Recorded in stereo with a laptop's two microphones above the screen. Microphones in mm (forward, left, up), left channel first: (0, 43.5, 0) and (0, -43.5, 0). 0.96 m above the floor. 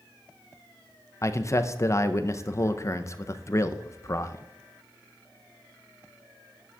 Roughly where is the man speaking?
Left.